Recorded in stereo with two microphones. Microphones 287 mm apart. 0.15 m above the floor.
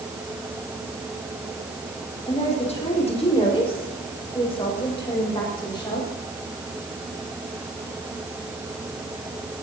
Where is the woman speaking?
20° left (ahead or behind), 5.5 m; by 6.1 s 15° left (ahead or behind), 9 m.